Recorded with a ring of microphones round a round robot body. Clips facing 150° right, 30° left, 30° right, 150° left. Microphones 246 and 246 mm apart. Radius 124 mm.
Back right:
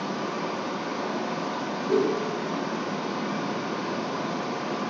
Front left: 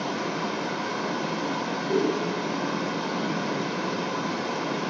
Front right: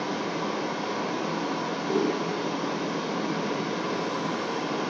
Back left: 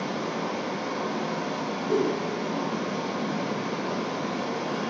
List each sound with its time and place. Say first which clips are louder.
0.0 s running water: front left 1 dB, even; 35° left, 1.6 m
1.9 s a whoosh: back right 1 dB, back left 1 dB; 105° right, 3.5 m